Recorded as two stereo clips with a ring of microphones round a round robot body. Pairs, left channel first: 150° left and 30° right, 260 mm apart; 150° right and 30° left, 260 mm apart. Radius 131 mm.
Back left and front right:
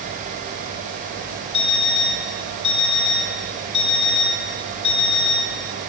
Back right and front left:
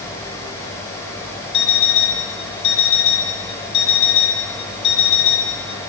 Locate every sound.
1.5 s an alarm clock: 165° right, 3 m